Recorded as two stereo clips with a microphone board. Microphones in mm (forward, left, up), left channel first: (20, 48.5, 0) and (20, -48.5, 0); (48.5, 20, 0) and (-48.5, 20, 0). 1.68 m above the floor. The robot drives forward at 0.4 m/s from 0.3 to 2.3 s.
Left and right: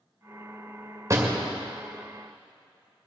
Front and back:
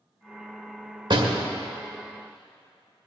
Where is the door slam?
150° right, 2 m.